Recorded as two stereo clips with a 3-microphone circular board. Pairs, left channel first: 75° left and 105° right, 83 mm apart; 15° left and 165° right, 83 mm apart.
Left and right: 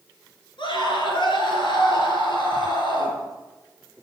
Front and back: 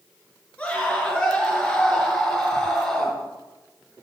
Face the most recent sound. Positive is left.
turn(degrees=95)